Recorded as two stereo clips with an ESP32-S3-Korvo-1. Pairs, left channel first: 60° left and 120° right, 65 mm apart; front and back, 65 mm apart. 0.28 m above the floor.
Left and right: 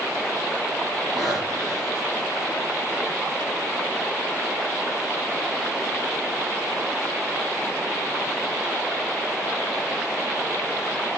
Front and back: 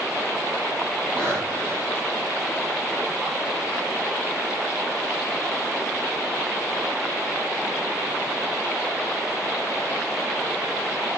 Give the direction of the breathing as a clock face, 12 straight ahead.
4 o'clock.